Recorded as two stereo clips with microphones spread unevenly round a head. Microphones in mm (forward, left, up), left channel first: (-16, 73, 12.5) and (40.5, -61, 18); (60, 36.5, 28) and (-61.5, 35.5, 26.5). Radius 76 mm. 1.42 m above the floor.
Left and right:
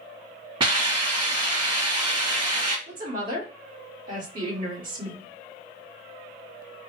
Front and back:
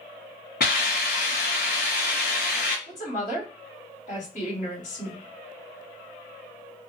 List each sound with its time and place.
0.6 s a hiss: 10° right, 1.5 m
2.9 s a woman speaking: 35° right, 1.6 m